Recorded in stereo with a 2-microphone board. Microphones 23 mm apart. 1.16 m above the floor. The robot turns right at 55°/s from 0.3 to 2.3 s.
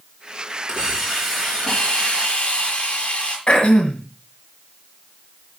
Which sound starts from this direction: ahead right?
A hiss, at 0.7 s.